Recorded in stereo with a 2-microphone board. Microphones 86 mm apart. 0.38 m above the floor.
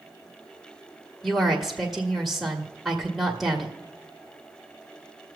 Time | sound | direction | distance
1.2 | a woman speaking | centre (ahead or behind) | 1.3 m